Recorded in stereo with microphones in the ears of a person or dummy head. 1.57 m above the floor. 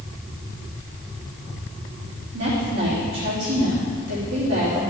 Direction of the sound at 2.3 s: 60° right (ahead or behind).